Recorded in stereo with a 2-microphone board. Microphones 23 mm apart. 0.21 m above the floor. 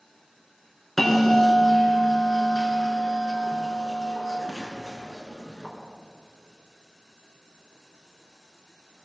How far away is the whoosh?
I don't hear a whoosh.